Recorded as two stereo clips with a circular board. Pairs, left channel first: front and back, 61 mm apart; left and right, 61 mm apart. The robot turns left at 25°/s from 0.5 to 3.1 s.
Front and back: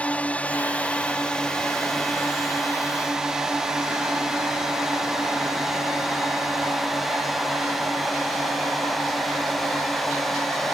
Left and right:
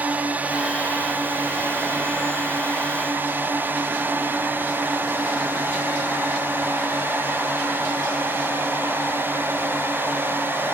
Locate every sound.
0.0 s a drone: 50° right; by 10.8 s 85° right